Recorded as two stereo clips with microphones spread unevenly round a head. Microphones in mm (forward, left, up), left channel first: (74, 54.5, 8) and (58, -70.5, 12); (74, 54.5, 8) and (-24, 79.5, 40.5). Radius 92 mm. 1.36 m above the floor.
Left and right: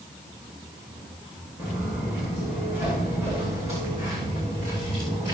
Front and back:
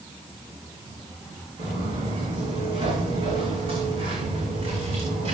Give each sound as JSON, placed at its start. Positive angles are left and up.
{"t": 1.6, "sound": "footsteps", "azimuth_deg": 130, "distance_m": 7.5}